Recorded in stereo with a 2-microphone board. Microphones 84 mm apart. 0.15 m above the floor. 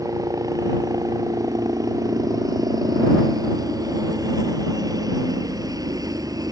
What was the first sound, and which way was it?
A helicopter, 50° right (ahead or behind).